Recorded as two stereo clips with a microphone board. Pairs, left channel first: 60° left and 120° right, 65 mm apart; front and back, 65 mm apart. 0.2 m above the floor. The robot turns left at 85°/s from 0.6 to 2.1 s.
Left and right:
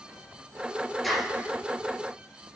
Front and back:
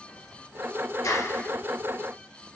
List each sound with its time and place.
1.0 s a clap: 30° right, 2.5 m; by 1.5 s 65° right, 2.5 m